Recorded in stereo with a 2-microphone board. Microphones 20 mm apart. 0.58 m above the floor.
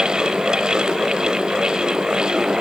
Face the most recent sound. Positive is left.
No sound to turn to.